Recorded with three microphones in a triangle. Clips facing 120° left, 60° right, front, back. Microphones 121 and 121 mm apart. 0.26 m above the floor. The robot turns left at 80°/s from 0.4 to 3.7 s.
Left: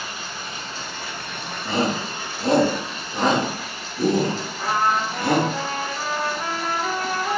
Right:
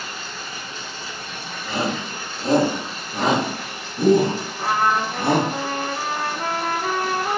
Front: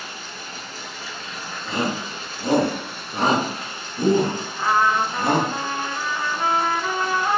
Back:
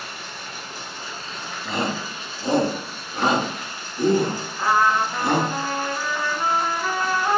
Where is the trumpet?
85° right, 0.7 m.